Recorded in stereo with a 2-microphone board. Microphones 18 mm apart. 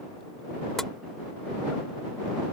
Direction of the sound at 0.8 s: 20° left (ahead or behind).